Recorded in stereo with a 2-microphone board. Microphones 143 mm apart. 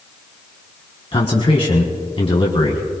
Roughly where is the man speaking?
Left.